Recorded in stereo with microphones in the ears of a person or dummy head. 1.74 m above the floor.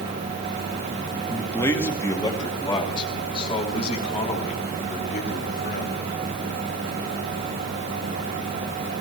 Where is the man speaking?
10° left (ahead or behind), 2.5 m; by 6.1 s 45° left (ahead or behind), 5 m.